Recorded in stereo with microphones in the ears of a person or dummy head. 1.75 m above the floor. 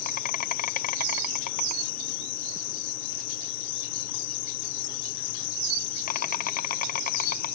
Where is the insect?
45° left (ahead or behind).